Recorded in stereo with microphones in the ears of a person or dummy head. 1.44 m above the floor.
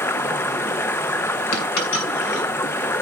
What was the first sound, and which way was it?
Running water, 15° left (ahead or behind).